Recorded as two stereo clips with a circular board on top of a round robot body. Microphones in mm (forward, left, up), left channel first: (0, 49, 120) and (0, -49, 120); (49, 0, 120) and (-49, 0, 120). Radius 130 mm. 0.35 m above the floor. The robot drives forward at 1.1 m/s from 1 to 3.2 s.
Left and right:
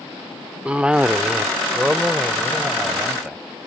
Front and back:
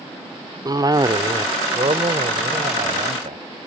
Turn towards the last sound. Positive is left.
turn(degrees=-175)